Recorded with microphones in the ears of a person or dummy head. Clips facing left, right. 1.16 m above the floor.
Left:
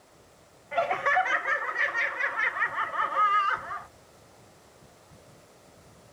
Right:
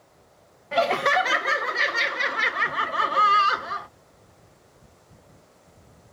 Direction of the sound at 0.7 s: 45° right (ahead or behind).